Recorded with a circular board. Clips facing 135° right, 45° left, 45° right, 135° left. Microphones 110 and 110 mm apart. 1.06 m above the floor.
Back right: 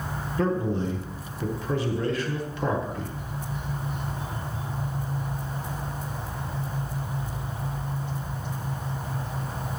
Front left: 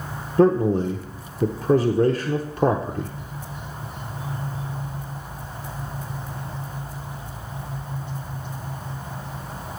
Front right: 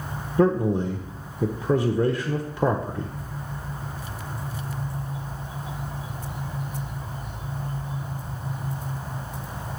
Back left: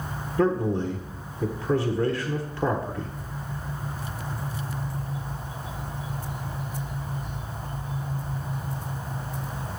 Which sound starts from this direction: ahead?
A man speaking, at 0.4 s.